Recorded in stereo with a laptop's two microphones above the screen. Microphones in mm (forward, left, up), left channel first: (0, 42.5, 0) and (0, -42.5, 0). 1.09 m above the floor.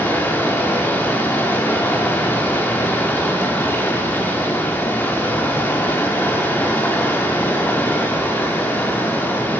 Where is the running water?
25° left (ahead or behind), 0.8 m.